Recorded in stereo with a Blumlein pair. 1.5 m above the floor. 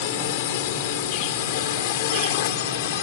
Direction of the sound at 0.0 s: 50° left.